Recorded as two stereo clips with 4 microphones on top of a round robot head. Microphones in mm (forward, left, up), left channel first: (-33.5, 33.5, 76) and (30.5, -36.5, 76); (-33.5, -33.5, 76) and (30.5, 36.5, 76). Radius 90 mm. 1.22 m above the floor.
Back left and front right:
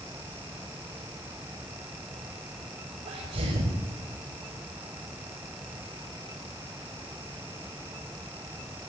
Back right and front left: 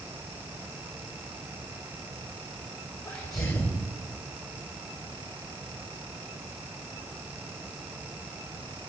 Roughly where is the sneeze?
Right.